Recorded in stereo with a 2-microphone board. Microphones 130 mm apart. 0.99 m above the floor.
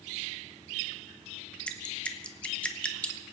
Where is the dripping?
10° left (ahead or behind), 1.1 m.